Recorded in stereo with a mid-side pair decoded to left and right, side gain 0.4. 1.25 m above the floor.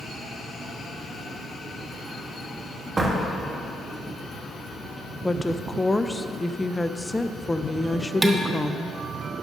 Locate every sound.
3.0 s a door slam: 30° right, 1.5 m
5.2 s a woman speaking: 15° left, 0.6 m
8.2 s dishes clattering: 15° right, 1.1 m